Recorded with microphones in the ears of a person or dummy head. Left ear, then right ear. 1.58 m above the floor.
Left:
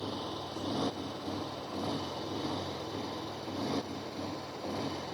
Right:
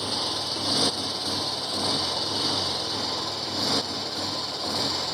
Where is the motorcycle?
65° right (ahead or behind); by 5.2 s 55° right (ahead or behind).